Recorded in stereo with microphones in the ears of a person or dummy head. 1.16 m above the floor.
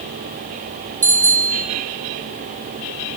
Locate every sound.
1.0 s a bicycle bell: 15° right (ahead or behind), 3.5 m